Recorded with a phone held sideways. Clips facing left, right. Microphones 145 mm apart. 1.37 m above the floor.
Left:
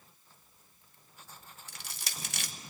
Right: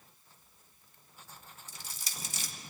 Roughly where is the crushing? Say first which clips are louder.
Left 3 dB; left.